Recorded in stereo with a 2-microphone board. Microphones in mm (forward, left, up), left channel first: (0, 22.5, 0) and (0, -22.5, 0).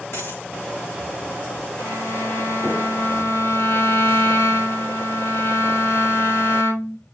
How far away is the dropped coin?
About 3 m.